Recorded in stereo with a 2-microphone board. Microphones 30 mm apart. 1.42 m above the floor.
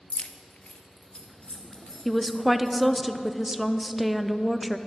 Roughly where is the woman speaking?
Centre.